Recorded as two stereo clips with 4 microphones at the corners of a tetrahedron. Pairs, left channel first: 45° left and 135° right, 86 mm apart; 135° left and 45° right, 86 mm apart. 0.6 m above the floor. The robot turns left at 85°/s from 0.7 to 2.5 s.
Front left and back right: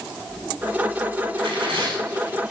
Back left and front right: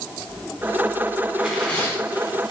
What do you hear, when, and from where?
1.4 s tearing paper: 125° right, 1.1 m; by 2.5 s 140° left, 1.1 m